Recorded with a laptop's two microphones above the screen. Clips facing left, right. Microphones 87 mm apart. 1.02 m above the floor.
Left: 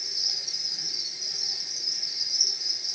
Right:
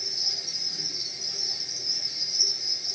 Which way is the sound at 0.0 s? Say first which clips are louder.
Right 3 dB; 50° right (ahead or behind).